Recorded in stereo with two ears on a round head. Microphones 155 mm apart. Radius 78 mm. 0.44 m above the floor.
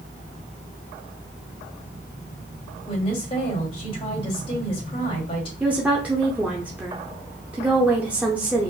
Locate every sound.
2.9 s a woman speaking: 35° left (ahead or behind), 2.5 m
5.6 s a woman speaking: 10° right (ahead or behind), 0.8 m